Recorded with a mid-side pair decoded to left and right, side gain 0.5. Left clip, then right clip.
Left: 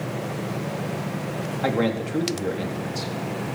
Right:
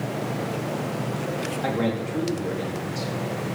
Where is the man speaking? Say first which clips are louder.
Left 4 dB; 30° left, 4 m.